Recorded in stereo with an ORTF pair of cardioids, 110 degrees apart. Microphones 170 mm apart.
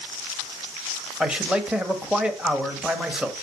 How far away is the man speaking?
About 1.5 m.